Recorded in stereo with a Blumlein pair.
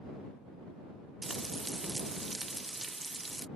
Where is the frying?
10° right.